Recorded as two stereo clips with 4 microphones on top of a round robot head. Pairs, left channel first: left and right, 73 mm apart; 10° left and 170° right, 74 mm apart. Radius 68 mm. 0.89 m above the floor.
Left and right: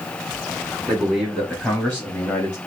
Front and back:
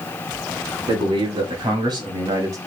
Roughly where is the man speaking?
Behind.